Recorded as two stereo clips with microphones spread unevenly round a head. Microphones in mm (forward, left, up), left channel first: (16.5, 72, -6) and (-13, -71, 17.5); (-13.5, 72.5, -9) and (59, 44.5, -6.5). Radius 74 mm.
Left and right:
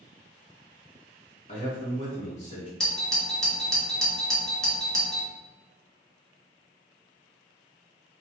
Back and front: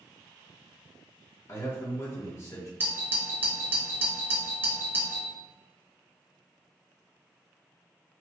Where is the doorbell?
15° left, 0.9 m.